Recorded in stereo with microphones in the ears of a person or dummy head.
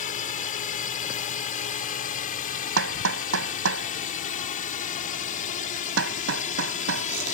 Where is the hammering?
70° right (ahead or behind).